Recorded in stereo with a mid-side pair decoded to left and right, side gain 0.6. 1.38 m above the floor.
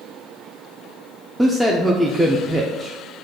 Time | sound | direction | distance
1.4 | a man speaking | straight ahead | 0.5 m